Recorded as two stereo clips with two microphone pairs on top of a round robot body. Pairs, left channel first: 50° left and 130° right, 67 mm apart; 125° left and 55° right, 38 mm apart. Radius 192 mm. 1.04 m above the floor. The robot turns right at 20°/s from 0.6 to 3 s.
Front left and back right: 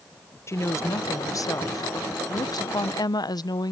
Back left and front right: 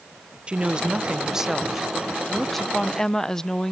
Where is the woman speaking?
Straight ahead; by 3.7 s 50° left.